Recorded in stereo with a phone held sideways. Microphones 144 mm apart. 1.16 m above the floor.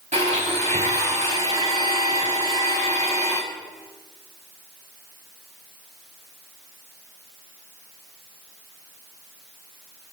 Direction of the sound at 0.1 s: 55° right (ahead or behind).